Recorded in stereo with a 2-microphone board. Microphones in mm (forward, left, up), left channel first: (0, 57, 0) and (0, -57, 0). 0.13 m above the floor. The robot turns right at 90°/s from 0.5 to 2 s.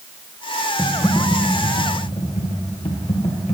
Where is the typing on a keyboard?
10° right, 2.5 m; by 3.5 s 100° left, 2.5 m.